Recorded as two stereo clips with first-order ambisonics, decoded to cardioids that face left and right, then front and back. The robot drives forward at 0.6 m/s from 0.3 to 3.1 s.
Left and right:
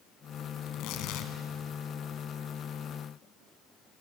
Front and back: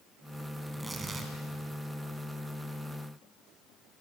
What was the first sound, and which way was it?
Tearing paper, 100° left.